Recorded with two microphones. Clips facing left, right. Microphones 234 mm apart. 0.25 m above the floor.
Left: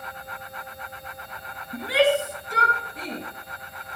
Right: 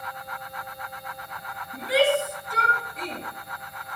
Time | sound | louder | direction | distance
1.7 | a shout | left 1 dB | 65° left (ahead or behind) | 4 m